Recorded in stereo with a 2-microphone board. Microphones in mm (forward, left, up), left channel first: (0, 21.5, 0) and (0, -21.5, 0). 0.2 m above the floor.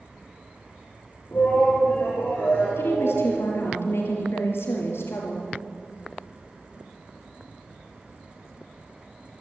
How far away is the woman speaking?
About 5 m.